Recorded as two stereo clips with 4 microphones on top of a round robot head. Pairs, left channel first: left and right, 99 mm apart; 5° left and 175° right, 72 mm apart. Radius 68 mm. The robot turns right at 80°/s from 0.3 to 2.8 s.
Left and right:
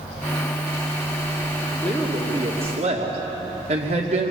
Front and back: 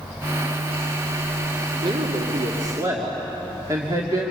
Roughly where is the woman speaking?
Behind.